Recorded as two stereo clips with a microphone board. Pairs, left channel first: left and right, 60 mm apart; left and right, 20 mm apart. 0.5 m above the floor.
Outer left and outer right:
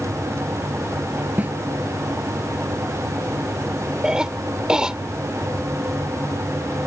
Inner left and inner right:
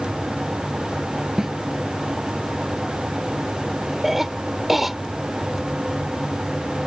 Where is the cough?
15° right (ahead or behind).